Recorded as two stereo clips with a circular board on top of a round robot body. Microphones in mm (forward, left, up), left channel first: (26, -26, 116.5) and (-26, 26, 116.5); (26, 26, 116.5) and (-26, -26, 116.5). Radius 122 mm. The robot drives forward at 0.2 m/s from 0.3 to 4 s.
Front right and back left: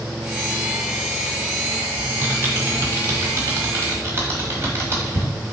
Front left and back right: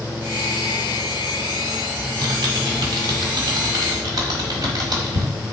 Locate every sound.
2.0 s typing on a keyboard: 165° right, 0.8 m; by 5.3 s 170° right, 1.2 m